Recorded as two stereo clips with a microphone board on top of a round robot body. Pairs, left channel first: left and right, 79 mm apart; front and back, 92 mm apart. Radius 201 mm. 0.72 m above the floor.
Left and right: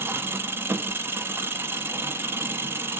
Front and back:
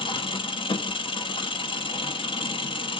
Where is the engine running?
30° right, 0.8 m.